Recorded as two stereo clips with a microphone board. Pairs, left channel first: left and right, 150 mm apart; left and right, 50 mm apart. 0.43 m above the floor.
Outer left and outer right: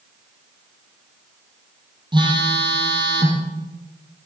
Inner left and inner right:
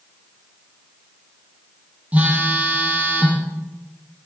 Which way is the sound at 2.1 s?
30° right (ahead or behind).